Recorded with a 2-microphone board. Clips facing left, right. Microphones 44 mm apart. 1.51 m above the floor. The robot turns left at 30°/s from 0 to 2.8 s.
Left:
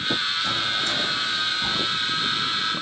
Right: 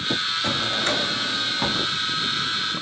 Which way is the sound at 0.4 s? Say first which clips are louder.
Right 1 dB; 50° right.